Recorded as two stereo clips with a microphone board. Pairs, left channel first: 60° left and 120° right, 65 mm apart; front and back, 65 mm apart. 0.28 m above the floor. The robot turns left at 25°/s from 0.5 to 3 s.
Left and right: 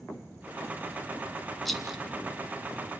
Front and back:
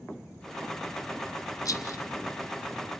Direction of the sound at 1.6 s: 25° right.